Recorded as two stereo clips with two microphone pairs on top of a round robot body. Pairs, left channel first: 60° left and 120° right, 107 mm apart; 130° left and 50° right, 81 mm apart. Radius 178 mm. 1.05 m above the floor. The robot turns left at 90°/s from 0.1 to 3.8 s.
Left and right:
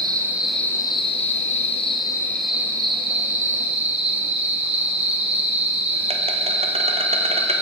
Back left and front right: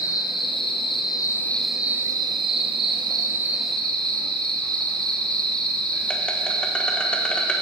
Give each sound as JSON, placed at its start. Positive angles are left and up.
{"t": 0.0, "sound": "an insect", "azimuth_deg": 180, "distance_m": 1.1}